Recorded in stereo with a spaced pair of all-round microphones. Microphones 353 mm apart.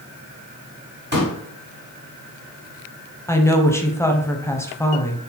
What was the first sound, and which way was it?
A pop, 30° right (ahead or behind).